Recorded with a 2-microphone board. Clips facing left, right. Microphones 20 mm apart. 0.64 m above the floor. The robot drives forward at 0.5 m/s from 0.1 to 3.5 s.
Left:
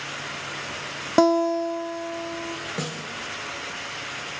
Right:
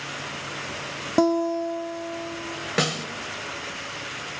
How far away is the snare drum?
About 2.5 m.